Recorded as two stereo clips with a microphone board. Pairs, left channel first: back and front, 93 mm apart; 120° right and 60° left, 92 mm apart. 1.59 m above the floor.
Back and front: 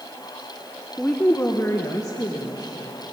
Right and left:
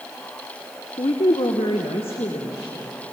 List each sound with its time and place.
1.0 s a woman speaking: 100° right, 1.0 m; by 2.9 s 140° right, 2.5 m